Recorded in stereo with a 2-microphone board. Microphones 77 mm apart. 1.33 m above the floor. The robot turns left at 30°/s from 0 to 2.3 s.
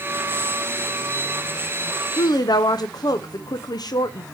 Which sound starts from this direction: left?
A woman speaking, at 2.2 s.